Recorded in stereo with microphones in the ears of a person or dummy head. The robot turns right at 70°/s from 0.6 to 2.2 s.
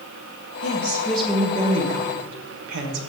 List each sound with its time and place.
0.6 s a woman speaking: 140° left, 1.4 m; by 3.0 s 110° right, 1.4 m